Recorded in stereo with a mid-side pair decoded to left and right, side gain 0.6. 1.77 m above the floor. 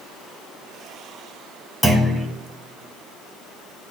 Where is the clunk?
10° right, 0.9 m.